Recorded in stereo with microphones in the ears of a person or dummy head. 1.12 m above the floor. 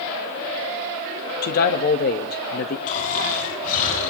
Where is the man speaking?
55° left (ahead or behind), 1.2 m.